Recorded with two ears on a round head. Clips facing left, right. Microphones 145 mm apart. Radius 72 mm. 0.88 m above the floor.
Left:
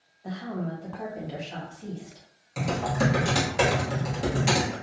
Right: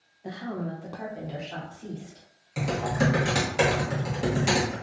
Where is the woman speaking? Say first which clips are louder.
Even; 15° right (ahead or behind), 0.6 m; by 2.2 s 10° left (ahead or behind), 1.4 m.